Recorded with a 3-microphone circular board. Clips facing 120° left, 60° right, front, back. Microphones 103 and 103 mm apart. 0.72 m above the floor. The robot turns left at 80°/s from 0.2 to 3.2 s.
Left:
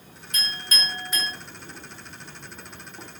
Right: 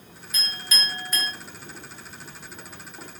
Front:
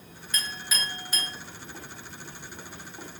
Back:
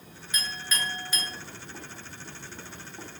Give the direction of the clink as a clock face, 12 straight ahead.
8 o'clock.